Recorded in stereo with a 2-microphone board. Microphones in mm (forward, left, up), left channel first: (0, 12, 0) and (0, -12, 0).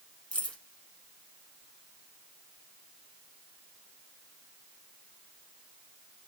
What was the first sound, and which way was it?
Keys jangling, 50° left (ahead or behind).